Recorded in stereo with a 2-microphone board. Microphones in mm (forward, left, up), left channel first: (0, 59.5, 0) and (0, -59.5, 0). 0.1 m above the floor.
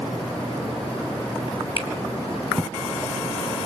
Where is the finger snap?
55° left (ahead or behind), 2.5 m.